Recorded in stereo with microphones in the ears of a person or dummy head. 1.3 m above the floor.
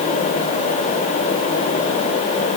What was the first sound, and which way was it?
Only background noise.